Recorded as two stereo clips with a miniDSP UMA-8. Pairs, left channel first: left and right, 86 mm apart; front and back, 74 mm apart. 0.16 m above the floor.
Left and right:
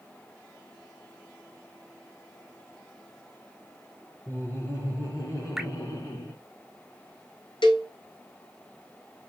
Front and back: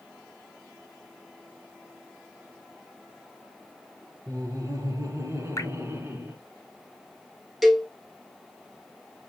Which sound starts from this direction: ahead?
Dripping, at 5.6 s.